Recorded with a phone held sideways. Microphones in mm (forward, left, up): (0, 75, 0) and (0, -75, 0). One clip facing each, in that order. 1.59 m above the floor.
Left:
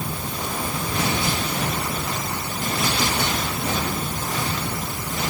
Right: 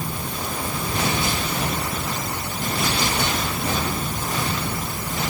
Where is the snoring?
I don't hear snoring.